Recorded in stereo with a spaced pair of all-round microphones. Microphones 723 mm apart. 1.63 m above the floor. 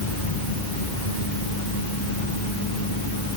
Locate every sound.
Only background noise.